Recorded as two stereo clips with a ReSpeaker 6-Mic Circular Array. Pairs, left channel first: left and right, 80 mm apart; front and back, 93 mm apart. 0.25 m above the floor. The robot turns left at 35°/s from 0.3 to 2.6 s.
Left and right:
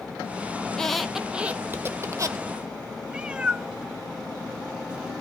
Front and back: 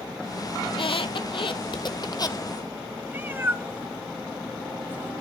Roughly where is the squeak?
Ahead.